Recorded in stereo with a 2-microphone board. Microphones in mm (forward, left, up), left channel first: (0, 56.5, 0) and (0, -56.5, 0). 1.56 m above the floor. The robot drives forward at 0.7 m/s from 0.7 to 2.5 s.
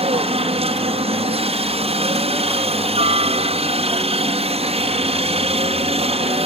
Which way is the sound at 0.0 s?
60° right (ahead or behind).